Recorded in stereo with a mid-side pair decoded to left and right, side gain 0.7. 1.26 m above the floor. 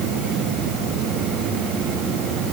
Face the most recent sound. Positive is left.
No sound to turn to.